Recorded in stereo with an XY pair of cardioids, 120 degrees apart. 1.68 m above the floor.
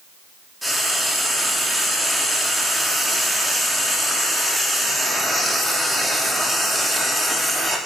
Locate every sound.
0.6 s frying: 5° right, 3 m